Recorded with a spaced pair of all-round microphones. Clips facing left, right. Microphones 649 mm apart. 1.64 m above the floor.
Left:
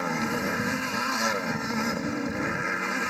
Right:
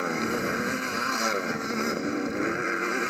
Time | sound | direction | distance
0.0 | a motorcycle | 25° left (ahead or behind) | ?